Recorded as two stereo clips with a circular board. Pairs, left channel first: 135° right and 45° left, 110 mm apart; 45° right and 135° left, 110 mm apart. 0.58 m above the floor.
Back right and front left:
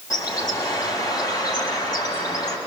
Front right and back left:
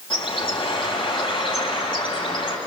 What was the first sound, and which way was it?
A bird, 80° right.